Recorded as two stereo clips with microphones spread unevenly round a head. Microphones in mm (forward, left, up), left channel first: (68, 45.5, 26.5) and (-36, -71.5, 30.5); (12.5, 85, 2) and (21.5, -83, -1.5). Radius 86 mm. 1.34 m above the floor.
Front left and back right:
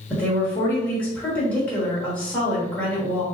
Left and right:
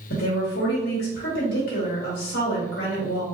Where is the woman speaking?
130° left, 1.7 m.